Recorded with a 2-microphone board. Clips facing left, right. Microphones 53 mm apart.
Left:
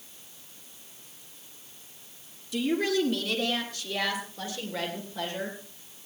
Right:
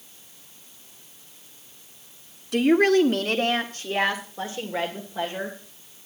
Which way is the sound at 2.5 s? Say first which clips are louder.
Right 9 dB; 55° right (ahead or behind).